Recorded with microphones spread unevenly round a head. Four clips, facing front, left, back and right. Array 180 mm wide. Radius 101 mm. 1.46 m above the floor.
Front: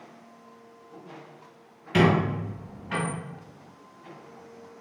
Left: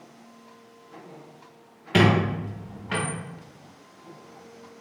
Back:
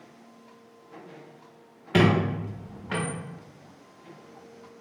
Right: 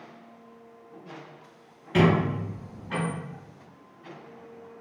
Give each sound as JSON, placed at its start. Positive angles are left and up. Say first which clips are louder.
{"t": 1.9, "sound": "a squeak", "louder": "left 1 dB, even", "azimuth_deg": 135, "distance_m": 1.2}